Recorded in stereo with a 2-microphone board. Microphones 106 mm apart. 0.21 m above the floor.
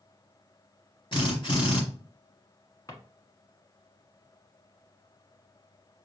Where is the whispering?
I don't hear whispering.